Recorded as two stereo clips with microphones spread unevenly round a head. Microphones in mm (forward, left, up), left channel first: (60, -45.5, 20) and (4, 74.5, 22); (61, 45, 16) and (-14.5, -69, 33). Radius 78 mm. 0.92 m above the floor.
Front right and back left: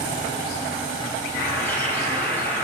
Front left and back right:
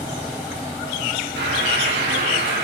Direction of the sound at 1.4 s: 145° right.